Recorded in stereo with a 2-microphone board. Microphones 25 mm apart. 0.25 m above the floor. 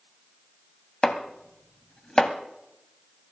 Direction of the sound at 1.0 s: 30° left (ahead or behind).